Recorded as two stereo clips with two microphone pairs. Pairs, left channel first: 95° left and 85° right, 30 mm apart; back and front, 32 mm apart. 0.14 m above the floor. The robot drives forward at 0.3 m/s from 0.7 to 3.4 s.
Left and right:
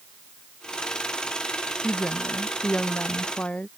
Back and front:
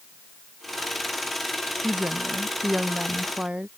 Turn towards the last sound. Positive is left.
turn(degrees=55)